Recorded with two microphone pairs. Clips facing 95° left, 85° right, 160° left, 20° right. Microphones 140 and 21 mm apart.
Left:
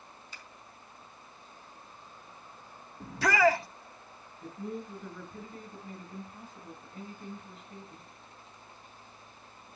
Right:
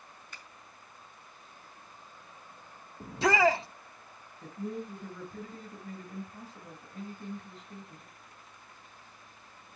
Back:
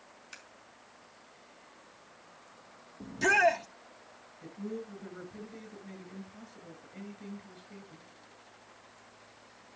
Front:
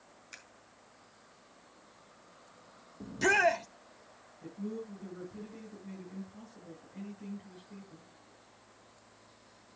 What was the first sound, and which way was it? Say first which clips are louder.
Scissors: right 1 dB, back 1 dB; 120° right.